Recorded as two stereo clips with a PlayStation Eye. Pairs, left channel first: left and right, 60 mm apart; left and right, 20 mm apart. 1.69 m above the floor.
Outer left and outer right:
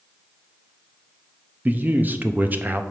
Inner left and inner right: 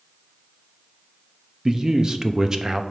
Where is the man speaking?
30° right (ahead or behind), 0.6 m.